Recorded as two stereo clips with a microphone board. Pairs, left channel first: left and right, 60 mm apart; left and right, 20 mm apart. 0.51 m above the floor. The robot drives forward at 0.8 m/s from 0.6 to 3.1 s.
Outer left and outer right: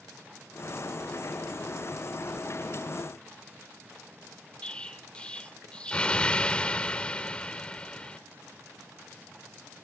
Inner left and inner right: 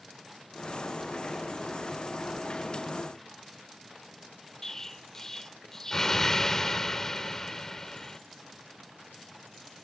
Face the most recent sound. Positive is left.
turn(degrees=20)  # may be behind; listen again after turning